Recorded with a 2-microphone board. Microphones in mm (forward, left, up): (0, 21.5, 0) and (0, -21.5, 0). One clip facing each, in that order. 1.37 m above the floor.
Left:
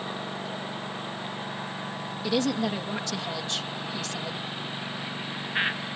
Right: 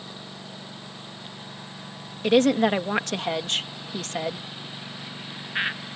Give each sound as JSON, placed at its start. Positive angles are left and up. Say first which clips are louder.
{"t": 0.0, "sound": "a lawn mower", "louder": "left 7 dB", "side_deg": 35}
{"t": 2.2, "sound": "a woman speaking", "louder": "right 8 dB", "side_deg": -50}